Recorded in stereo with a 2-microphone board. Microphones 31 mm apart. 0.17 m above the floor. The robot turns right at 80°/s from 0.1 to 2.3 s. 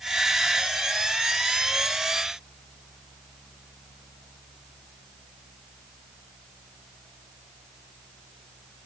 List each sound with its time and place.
Only background noise.